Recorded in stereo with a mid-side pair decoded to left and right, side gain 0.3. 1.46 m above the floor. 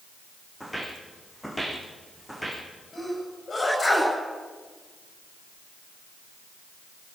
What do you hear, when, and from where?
0.6 s footsteps: straight ahead, 6 m
2.9 s a sneeze: 50° left, 9.5 m